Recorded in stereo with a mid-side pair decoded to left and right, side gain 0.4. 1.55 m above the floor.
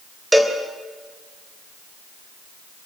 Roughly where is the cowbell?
Ahead.